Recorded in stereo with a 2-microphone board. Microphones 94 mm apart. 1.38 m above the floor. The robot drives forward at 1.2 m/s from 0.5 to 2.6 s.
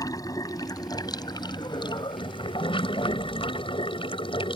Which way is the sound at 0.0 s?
40° left (ahead or behind).